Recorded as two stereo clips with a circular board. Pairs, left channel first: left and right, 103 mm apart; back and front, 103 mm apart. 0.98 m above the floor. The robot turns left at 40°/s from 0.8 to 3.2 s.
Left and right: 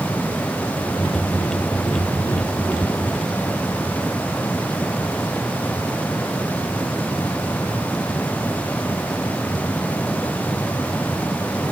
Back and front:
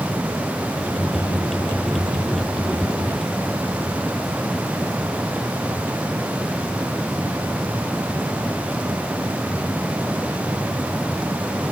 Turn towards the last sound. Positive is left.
No sound to turn to.